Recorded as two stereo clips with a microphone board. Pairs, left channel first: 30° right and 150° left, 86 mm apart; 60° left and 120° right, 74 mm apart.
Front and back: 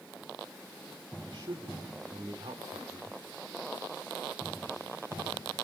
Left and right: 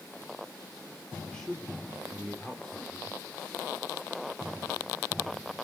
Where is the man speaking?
140° left, 3 m.